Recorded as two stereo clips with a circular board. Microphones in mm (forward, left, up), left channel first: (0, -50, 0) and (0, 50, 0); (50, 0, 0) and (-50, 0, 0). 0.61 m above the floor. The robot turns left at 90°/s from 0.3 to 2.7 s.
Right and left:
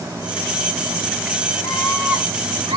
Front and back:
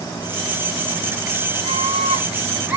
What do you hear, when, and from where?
1.6 s a scream: 160° right, 5.5 m; by 2.8 s 100° left, 5.5 m